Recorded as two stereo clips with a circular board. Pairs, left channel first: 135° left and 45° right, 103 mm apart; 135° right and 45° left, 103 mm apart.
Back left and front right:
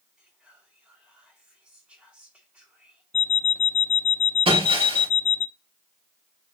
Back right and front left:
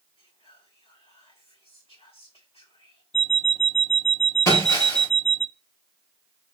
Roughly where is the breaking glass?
Right.